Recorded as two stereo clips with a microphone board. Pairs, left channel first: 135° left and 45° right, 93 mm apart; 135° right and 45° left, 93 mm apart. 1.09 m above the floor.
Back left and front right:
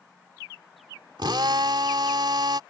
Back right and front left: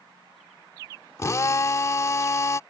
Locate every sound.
1.2 s a drill: 80° right